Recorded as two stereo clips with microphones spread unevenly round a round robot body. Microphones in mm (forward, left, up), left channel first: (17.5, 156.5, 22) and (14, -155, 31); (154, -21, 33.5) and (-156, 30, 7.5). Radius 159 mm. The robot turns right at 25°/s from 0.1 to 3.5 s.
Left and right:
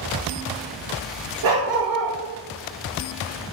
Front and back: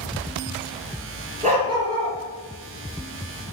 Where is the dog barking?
120° right, 2.5 m; by 2.1 s 105° right, 2.5 m.